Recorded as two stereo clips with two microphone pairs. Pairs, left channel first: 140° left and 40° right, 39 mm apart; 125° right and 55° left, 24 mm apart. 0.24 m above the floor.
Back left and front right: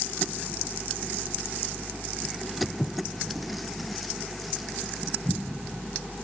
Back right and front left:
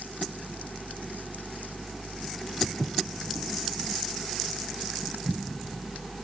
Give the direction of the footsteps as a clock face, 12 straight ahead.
10 o'clock.